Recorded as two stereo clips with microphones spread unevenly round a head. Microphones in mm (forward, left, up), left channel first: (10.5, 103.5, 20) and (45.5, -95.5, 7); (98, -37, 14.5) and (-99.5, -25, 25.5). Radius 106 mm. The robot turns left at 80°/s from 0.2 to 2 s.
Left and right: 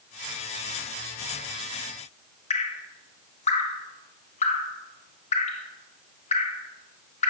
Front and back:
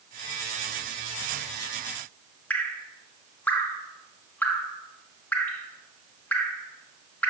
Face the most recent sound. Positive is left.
turn(degrees=70)